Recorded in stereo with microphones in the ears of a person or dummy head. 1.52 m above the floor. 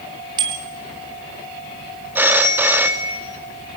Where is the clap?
I don't hear a clap.